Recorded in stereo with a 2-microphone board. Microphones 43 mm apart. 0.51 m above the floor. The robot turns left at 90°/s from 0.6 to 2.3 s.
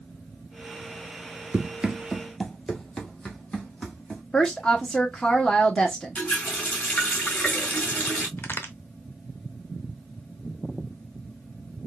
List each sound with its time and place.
1.5 s running footsteps: 35° right (ahead or behind), 0.5 m; by 4.2 s 20° left (ahead or behind), 1.7 m
4.3 s a woman speaking: 20° left (ahead or behind), 0.8 m
6.2 s a running tap: 30° left (ahead or behind), 2 m
8.4 s a crack: 50° left (ahead or behind), 0.7 m